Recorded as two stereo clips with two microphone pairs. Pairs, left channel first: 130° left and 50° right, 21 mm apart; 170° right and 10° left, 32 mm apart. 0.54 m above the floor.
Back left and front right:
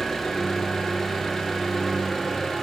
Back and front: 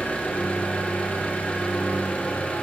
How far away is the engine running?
About 1.1 m.